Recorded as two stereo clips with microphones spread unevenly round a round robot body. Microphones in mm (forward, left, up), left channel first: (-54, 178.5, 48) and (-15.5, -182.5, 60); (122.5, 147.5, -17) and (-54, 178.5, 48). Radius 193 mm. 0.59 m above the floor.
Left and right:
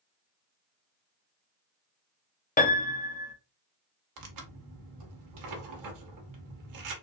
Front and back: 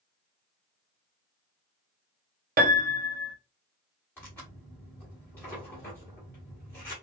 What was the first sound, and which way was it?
A piano, 140° left.